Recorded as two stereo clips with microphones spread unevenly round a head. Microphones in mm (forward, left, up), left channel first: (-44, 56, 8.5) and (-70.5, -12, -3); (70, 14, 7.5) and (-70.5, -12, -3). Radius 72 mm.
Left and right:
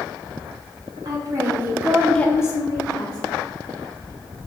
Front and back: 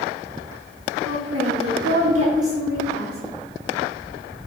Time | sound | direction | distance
1.1 | a woman speaking | 155° right | 1.3 m